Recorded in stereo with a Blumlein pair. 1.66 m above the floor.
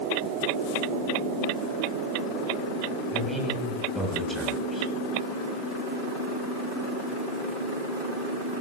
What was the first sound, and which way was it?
A man speaking, straight ahead.